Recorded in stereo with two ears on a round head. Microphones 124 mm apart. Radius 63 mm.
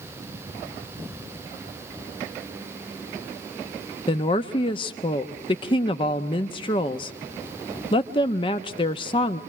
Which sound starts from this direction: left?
A woman speaking, at 4.1 s.